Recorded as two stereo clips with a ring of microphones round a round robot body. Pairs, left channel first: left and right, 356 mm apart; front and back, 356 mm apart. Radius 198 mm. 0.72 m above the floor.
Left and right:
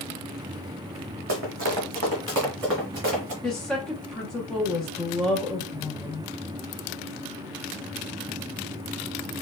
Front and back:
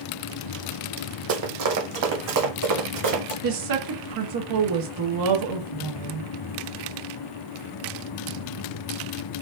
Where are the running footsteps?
145° right, 1.4 m; by 3.3 s 150° right, 3 m.